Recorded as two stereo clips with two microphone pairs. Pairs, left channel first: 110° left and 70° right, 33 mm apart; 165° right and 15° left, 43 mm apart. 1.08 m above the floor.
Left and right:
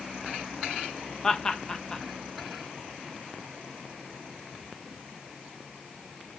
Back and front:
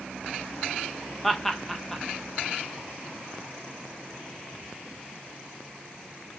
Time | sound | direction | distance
1.2 | laughter | 130° left | 0.5 m